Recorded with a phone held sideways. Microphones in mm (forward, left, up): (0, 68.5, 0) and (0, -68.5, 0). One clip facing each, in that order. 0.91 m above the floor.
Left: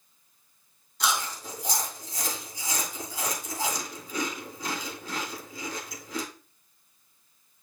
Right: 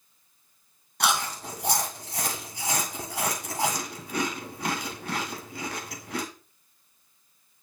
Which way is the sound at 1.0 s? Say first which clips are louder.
Right 3 dB; 65° right (ahead or behind).